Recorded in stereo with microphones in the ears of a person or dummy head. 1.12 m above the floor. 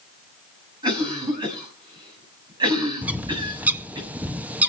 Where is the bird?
5° right (ahead or behind), 0.6 m.